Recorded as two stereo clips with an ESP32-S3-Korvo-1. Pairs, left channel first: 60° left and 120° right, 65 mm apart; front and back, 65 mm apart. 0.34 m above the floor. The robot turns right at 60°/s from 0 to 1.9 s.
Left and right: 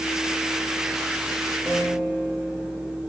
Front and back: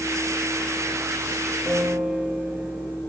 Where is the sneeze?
No sneeze in this recording.